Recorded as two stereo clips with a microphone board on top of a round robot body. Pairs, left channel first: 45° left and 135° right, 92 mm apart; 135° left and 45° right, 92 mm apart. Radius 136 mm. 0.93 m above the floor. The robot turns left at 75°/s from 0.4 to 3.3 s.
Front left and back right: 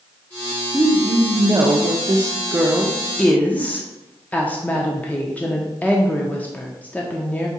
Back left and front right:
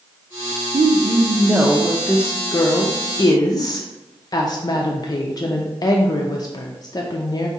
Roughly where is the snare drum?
No snare drum in this recording.